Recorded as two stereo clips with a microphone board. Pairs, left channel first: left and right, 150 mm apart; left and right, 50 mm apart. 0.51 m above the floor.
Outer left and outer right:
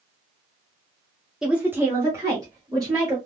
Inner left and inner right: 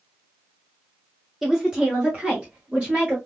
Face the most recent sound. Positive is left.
turn(degrees=-25)  # may be behind; listen again after turning